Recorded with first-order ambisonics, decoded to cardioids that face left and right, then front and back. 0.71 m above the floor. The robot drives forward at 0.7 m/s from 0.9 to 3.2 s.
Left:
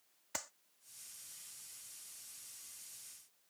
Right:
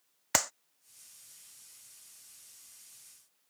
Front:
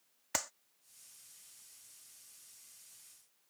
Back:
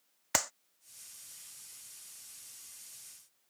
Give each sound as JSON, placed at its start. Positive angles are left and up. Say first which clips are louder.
{"t": 0.3, "sound": "a clap", "louder": "right 15 dB, back 6 dB", "azimuth_deg": -115}